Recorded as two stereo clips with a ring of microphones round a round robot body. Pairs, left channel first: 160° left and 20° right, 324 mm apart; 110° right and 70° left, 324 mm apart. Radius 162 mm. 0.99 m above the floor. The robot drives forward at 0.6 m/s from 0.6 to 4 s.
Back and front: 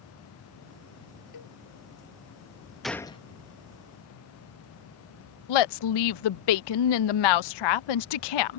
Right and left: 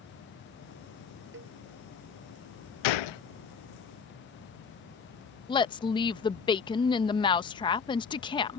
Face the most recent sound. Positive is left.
turn(degrees=170)